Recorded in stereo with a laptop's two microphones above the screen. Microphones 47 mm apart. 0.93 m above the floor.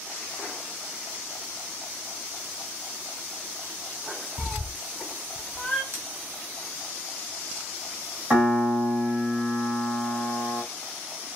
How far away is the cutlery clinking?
About 0.6 m.